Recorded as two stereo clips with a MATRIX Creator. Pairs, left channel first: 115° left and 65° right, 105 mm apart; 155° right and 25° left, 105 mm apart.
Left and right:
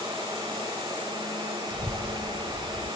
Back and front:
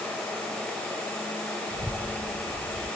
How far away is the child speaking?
About 1.0 m.